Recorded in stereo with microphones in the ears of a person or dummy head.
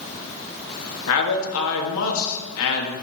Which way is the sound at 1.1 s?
80° left.